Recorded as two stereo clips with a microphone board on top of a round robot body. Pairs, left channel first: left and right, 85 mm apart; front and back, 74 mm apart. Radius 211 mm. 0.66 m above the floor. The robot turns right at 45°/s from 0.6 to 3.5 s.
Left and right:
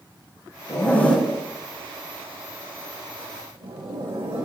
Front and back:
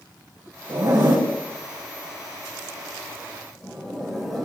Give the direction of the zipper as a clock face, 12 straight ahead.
7 o'clock.